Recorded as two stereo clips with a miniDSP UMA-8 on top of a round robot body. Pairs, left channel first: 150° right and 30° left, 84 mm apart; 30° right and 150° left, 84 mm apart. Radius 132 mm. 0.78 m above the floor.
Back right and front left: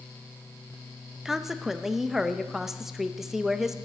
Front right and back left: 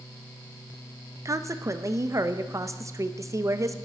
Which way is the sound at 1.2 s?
115° left.